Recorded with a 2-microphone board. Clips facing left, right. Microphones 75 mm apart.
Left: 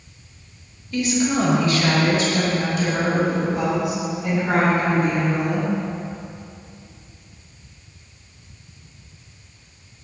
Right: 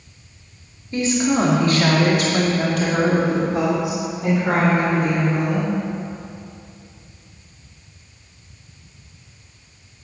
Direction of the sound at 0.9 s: 30° right (ahead or behind).